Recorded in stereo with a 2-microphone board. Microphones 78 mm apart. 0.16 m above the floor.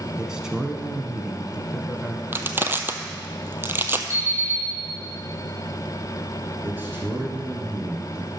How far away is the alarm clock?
About 4 m.